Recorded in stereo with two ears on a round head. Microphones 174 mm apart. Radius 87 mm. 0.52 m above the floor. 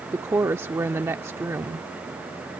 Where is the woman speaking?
15° right (ahead or behind).